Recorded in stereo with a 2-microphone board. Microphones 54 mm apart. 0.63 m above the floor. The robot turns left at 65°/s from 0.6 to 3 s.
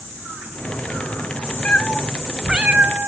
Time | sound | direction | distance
1.6 | a cat meowing | 35° left | 0.8 m